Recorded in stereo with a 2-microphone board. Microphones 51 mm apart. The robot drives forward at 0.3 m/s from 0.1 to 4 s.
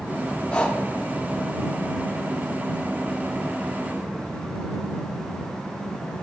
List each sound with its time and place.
0.5 s breathing: 20° left (ahead or behind), 0.6 m